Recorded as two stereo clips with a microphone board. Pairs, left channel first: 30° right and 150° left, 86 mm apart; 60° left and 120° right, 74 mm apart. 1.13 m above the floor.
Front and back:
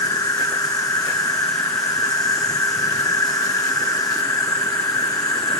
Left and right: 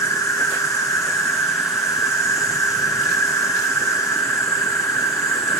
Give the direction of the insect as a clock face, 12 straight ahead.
11 o'clock.